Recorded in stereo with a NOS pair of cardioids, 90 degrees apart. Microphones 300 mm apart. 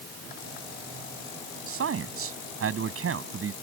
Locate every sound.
1.7 s a man speaking: 50° right